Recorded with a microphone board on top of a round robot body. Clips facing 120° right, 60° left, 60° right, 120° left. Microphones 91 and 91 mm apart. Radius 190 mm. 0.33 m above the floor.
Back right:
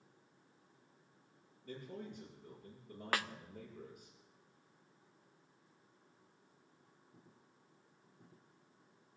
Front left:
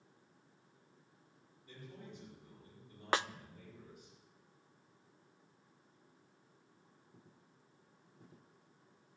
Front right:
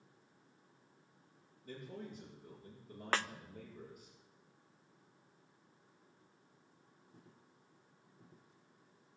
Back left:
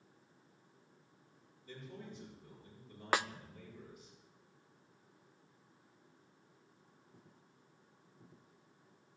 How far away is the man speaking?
About 9.5 m.